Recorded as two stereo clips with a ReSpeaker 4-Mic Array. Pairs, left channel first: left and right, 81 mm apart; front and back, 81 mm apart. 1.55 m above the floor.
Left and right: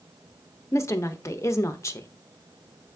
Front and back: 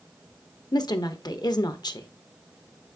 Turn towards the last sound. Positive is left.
turn(degrees=35)